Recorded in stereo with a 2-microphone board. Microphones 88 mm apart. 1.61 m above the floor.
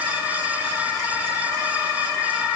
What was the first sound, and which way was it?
Only background noise.